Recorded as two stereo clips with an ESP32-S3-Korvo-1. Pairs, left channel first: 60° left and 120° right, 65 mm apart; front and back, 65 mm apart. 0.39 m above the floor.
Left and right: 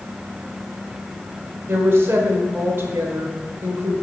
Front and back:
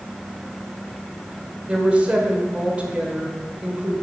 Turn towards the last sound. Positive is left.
turn(degrees=-120)